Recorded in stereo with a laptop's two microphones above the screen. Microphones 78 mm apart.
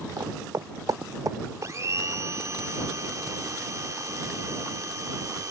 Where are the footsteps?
55° right (ahead or behind); by 1.7 s 50° right (ahead or behind).